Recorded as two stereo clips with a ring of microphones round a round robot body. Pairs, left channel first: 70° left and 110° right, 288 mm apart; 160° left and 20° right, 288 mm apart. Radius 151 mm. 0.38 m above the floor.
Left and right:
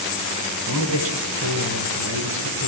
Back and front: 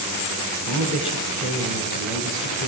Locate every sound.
0.7 s a man speaking: 155° right, 3.5 m; by 2.7 s 150° right, 5 m